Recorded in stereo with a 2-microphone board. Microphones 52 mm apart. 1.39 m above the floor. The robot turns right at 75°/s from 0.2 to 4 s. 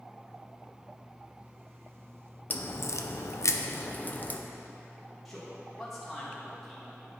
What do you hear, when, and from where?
2.5 s a crack: 35° left (ahead or behind), 0.6 m; by 4.4 s 30° left (ahead or behind), 0.6 m
5.2 s a man speaking: 5° left (ahead or behind), 2.5 m